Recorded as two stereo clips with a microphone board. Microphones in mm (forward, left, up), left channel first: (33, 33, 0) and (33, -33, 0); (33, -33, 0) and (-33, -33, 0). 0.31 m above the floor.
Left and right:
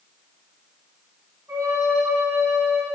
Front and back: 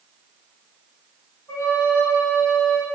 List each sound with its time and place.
1.5 s a flute: 45° right, 2.5 m